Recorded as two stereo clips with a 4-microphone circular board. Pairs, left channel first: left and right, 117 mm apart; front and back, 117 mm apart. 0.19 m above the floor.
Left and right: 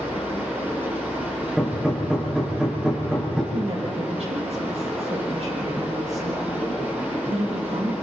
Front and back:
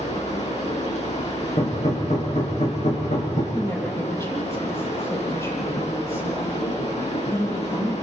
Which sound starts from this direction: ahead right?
A woman speaking, at 3.5 s.